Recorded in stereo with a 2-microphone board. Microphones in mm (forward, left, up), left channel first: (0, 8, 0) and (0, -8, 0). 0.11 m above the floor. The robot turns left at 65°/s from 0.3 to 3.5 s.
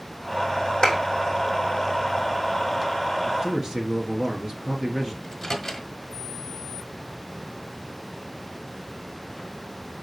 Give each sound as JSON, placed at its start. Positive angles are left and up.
{"t": 0.8, "sound": "a clap", "side_deg": 65, "distance_m": 4.0}
{"t": 3.2, "sound": "a man speaking", "side_deg": -40, "distance_m": 2.0}
{"t": 5.2, "sound": "a microwave", "side_deg": 15, "distance_m": 1.6}